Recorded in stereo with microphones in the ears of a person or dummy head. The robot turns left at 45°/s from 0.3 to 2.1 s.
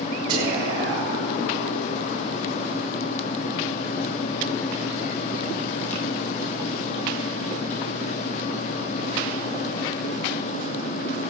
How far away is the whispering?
About 3.5 m.